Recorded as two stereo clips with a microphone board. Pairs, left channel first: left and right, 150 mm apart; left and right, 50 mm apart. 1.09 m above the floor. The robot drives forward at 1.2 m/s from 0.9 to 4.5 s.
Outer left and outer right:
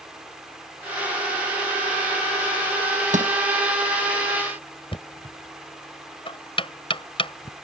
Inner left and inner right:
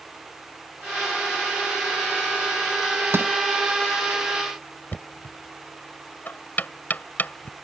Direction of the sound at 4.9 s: 35° left (ahead or behind).